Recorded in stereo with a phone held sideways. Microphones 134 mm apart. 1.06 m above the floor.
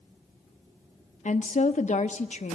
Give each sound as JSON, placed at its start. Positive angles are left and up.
{"t": 1.2, "sound": "a woman speaking", "side_deg": 70, "distance_m": 0.6}